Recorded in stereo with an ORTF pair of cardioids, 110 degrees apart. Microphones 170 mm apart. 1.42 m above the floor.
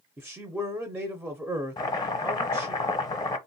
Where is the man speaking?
5° right, 0.5 m.